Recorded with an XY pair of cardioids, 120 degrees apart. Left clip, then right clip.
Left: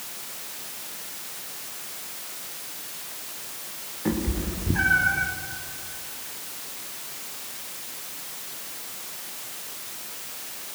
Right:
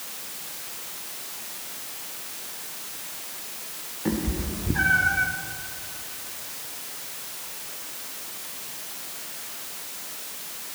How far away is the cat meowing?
About 1.8 m.